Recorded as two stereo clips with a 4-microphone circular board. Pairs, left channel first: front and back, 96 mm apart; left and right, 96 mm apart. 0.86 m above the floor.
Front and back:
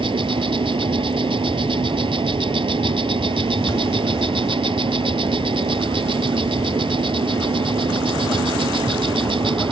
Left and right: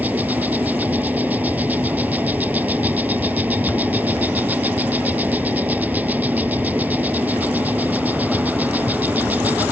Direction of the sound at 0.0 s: 160° right.